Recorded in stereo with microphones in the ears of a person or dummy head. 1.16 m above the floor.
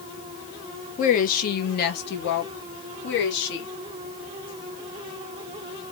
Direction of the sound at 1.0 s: 45° left (ahead or behind).